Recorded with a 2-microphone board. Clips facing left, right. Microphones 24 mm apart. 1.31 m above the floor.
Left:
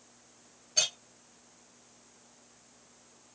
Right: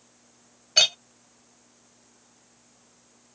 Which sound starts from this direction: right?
A clink, at 0.8 s.